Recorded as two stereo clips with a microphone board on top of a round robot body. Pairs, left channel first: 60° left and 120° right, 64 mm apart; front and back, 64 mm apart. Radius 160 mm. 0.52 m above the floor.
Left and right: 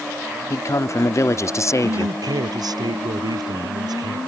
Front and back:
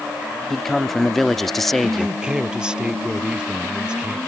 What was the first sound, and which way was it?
A man speaking, 85° left.